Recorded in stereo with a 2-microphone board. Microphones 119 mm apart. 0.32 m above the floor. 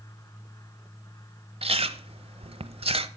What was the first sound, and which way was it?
Chewing, 55° right (ahead or behind).